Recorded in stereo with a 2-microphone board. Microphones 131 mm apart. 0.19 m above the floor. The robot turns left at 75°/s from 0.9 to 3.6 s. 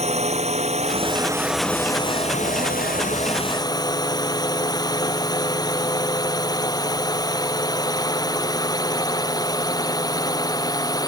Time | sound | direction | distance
0.0 | a drone | 50° right (ahead or behind) | ?